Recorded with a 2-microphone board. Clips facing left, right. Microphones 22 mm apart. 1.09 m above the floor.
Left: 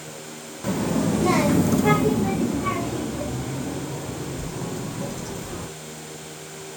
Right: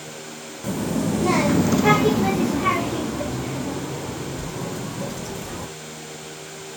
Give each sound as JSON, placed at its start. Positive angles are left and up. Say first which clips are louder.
{"t": 0.6, "sound": "a child speaking", "louder": "left 1 dB", "side_deg": 25, "distance_m": 1.1}